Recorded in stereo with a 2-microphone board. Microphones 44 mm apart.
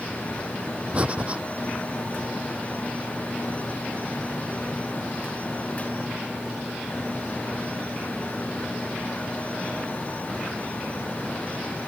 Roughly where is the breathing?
Right.